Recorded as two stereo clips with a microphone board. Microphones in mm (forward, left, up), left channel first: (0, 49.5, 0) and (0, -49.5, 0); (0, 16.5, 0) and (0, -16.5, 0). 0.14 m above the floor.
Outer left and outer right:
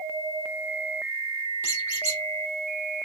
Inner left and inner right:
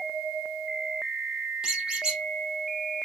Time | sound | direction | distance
1.6 | a squeak | 25° right (ahead or behind) | 1.4 m